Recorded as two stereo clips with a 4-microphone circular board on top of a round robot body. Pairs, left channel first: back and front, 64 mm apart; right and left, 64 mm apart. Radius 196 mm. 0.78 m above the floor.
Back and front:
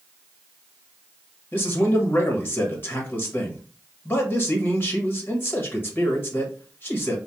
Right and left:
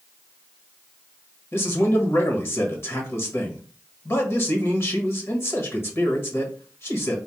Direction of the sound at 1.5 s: 130° right.